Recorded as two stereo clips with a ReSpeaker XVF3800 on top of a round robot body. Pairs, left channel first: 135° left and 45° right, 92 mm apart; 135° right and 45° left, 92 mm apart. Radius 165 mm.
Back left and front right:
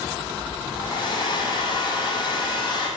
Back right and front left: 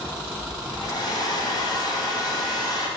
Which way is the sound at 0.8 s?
Straight behind.